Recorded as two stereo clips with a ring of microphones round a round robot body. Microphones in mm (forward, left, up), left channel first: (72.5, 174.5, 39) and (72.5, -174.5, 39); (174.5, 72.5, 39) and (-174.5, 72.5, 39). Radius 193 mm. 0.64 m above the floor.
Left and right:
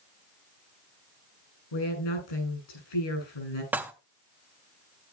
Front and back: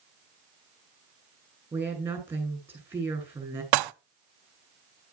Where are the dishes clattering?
175° right, 0.7 m.